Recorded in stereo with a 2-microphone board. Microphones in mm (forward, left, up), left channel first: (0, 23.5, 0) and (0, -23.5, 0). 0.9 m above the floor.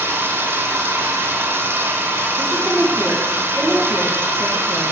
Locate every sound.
0.0 s running water: 70° right (ahead or behind), 5 m
2.4 s a woman speaking: 10° right (ahead or behind), 5.5 m